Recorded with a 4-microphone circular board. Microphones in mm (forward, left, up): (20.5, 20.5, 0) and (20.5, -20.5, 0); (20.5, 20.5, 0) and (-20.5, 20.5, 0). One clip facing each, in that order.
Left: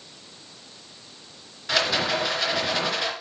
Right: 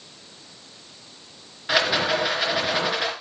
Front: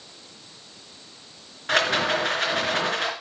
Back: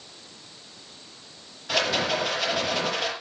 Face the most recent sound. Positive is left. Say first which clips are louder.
# right 2 dB, front 3 dB
turn(degrees=-20)